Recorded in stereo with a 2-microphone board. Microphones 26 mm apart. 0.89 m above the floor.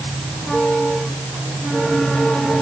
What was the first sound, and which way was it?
Only background noise.